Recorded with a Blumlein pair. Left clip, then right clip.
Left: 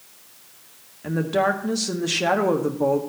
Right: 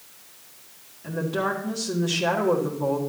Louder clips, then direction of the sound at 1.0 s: Left 5 dB; 25° left.